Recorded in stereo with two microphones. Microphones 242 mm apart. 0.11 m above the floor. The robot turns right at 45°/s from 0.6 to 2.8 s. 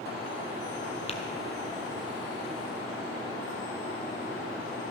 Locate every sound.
1.1 s tapping: 25° left (ahead or behind), 1.2 m; by 1.2 s 30° left (ahead or behind), 1.2 m